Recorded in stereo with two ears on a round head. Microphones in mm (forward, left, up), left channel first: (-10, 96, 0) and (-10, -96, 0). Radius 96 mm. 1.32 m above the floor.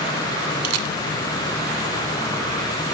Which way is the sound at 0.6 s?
85° right.